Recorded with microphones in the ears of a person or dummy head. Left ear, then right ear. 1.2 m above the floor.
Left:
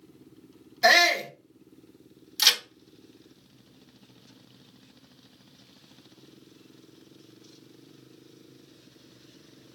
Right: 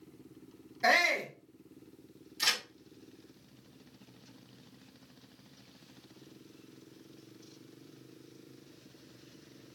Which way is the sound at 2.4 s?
40° left (ahead or behind).